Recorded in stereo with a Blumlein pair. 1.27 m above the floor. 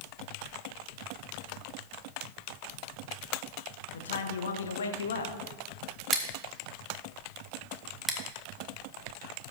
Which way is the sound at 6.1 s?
5° left.